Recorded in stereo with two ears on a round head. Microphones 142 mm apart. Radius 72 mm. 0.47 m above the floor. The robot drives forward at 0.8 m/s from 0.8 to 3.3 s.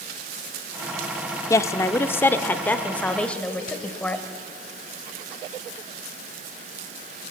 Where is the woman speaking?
20° left (ahead or behind), 0.7 m; by 4.2 s 10° left (ahead or behind), 1.7 m.